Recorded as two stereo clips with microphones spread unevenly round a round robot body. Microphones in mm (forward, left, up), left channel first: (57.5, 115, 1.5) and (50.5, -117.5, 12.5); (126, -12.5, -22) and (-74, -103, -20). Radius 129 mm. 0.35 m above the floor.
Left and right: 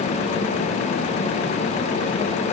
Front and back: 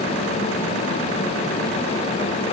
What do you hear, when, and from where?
Only background noise.